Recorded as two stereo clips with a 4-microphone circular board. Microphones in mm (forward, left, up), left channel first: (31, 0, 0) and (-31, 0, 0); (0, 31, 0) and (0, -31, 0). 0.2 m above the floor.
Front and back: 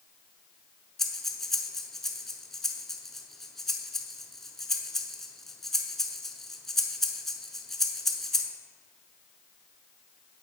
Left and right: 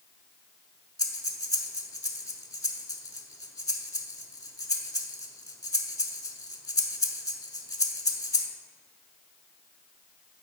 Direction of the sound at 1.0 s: 85° left.